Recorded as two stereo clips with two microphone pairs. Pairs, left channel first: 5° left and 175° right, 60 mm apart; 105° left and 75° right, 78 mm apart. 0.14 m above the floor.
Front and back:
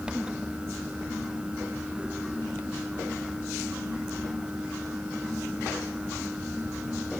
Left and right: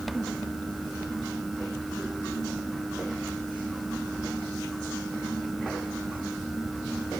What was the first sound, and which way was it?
Only background noise.